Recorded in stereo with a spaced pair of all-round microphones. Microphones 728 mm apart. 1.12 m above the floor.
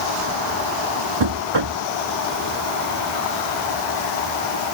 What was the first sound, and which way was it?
Knocking, 35° right (ahead or behind).